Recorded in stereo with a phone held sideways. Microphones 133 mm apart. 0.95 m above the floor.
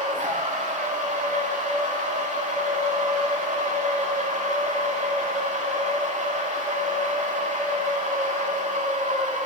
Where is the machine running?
60° right (ahead or behind), 2.5 m.